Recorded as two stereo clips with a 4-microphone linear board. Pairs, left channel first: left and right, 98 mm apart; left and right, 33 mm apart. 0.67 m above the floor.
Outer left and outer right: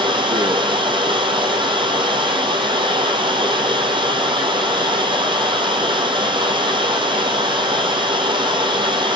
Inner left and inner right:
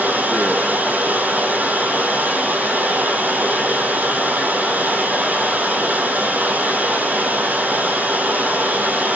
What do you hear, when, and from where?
0.0 s running water: 55° right (ahead or behind), 2.5 m